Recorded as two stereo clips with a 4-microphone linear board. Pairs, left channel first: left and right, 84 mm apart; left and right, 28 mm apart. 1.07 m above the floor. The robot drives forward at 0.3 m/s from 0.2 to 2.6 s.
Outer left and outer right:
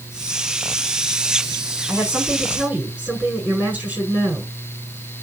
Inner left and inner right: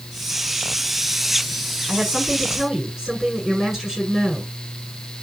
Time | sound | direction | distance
1.9 | a woman speaking | 20° right (ahead or behind) | 9.5 m